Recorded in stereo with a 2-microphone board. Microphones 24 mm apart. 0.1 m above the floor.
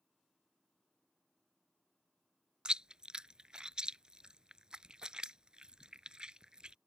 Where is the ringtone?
I don't hear a ringtone.